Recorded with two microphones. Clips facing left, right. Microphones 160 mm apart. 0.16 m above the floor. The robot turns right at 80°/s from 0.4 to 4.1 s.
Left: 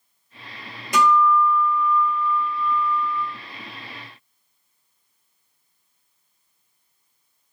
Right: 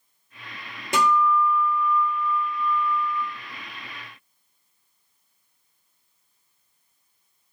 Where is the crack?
No crack in this recording.